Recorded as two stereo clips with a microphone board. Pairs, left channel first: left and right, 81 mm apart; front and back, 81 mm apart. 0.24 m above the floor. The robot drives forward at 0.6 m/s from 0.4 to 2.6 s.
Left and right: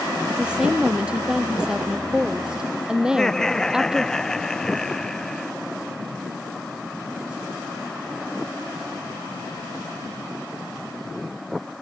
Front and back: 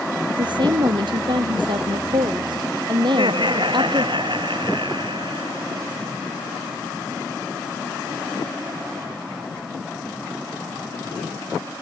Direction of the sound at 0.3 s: 165° right.